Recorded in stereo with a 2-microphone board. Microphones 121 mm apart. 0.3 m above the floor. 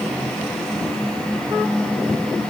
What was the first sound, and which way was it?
Only background noise.